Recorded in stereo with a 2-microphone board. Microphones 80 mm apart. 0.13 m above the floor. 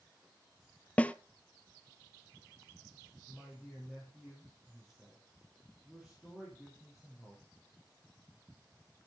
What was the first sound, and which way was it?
A snare drum, 15° left (ahead or behind).